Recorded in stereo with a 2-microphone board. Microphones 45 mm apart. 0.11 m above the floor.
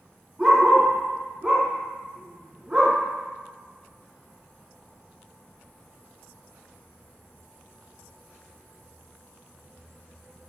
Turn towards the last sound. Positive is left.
turn(degrees=-15)  # may be behind; listen again after turning